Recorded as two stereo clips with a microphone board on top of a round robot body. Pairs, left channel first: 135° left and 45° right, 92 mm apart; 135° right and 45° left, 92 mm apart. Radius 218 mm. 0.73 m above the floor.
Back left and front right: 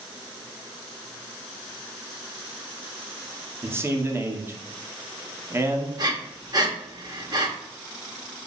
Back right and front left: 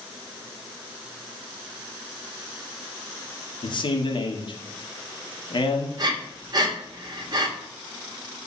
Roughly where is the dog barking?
I don't hear a dog barking.